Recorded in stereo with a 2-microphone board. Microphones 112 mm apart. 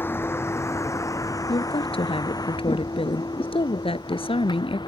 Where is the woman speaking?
55° left (ahead or behind).